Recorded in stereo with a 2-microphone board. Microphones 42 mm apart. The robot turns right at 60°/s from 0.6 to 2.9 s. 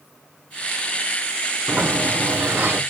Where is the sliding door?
140° right, 1.7 m; by 2.8 s 75° right, 1.7 m.